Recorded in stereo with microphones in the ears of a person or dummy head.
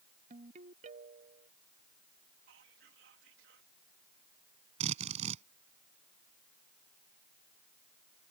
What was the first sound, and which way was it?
A ringtone, 45° right (ahead or behind).